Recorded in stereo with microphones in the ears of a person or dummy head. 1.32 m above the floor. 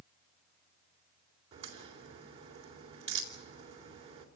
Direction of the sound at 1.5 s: 30° right (ahead or behind).